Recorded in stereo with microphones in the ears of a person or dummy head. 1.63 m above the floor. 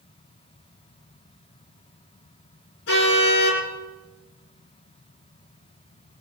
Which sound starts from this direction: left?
A car horn, at 2.9 s.